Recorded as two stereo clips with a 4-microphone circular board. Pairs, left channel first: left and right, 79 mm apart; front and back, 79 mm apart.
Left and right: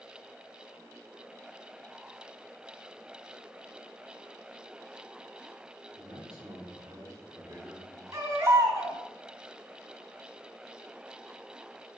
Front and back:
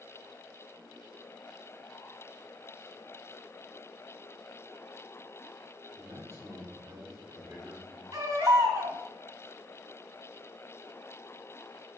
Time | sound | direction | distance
6.0 | a man speaking | 125° right | 3 m
8.1 | a baby crying | 140° right | 3.5 m